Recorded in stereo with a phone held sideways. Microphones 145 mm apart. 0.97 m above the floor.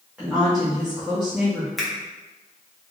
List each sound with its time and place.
0.2 s a woman speaking: 10° right (ahead or behind), 1.4 m
1.8 s a finger snap: centre (ahead or behind), 1.1 m